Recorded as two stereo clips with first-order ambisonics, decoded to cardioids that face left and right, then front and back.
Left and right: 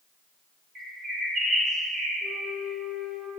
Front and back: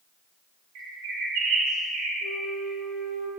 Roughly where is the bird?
Behind right.